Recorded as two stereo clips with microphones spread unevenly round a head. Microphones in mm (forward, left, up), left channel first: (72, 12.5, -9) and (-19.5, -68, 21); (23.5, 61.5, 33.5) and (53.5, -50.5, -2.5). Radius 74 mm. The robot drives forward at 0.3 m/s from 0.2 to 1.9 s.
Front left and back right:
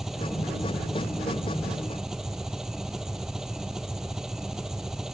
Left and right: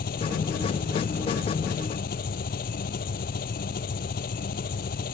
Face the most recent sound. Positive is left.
turn(degrees=135)